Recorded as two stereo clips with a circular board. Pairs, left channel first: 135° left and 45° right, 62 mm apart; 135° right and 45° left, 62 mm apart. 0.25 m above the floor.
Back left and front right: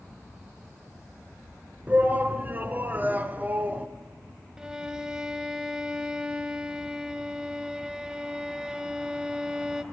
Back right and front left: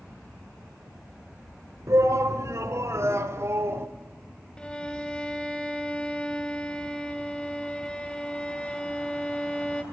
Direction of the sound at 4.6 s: 95° right.